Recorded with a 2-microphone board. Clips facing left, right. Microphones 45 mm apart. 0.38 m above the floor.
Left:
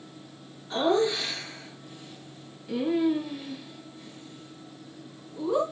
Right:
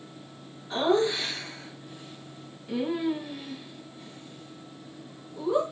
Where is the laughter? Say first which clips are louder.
Even; 5° right (ahead or behind), 7 m.